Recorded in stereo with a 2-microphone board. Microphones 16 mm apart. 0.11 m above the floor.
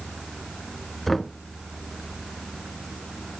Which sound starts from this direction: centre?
Knocking, at 1.1 s.